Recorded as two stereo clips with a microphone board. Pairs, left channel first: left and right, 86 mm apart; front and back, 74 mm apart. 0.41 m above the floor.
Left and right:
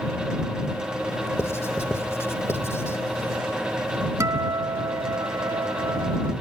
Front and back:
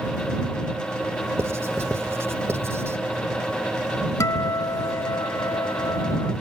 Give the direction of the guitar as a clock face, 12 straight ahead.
1 o'clock.